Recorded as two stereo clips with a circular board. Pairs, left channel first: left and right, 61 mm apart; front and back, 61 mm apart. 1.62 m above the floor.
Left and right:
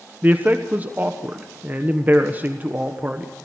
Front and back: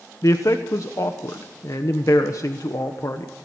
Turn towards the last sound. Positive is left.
turn(degrees=-30)